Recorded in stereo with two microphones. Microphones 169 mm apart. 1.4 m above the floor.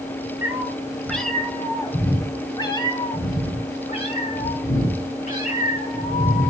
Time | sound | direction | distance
0.4 | a cat meowing | 15° right (ahead or behind) | 1.6 m